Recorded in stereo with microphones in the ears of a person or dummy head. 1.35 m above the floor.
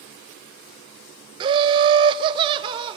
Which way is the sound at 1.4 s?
25° right (ahead or behind).